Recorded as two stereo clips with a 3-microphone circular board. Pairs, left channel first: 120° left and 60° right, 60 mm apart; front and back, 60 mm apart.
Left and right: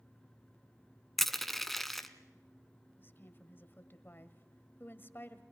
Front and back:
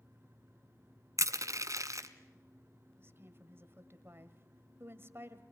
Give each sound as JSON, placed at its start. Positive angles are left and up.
{"t": 1.2, "sound": "crushing", "azimuth_deg": -155, "distance_m": 1.1}
{"t": 3.0, "sound": "a woman speaking", "azimuth_deg": 155, "distance_m": 1.6}